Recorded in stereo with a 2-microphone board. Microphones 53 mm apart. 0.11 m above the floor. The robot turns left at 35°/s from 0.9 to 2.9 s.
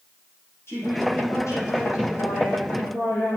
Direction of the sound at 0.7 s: 130° left.